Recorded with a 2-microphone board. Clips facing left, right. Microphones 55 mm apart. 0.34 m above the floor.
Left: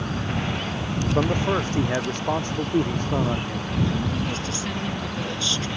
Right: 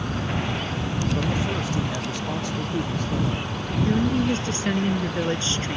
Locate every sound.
1.1 s a man speaking: 40° left (ahead or behind)
3.9 s a woman speaking: 35° right (ahead or behind)